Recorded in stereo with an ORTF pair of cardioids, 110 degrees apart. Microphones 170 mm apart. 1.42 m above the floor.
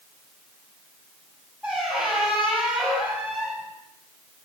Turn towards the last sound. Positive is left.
turn(degrees=-5)